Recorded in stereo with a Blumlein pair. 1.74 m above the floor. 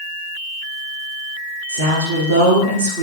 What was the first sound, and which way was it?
A woman speaking, 65° right.